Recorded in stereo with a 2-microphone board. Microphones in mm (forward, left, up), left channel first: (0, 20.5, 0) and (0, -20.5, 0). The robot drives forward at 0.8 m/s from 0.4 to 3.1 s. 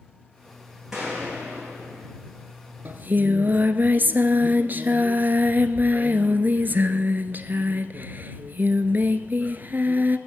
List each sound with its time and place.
0.9 s a gunshot: 15° right (ahead or behind), 8.5 m; by 2.1 s 20° right (ahead or behind), 7.5 m
2.9 s singing: 55° right (ahead or behind), 0.9 m; by 10.2 s 50° right (ahead or behind), 0.9 m